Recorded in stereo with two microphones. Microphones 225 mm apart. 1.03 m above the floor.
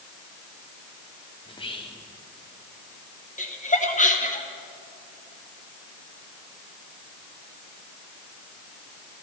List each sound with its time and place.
1.4 s whispering: 25° left (ahead or behind), 1.0 m
3.4 s laughter: 35° left (ahead or behind), 1.2 m